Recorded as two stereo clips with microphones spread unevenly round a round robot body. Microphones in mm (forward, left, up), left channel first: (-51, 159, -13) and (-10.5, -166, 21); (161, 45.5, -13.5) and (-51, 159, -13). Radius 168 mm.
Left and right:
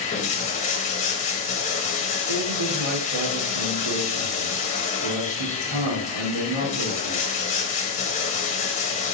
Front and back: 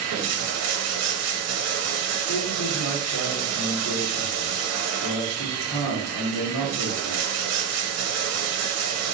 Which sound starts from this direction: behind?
Running water, at 0.0 s.